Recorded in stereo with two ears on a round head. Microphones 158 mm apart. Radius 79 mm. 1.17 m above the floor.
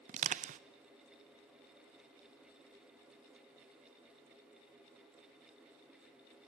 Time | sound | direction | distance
0.1 | crushing | 40° right (ahead or behind) | 0.5 m